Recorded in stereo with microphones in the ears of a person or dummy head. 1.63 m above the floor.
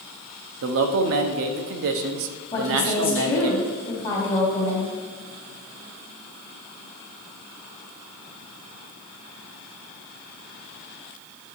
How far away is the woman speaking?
About 2.5 m.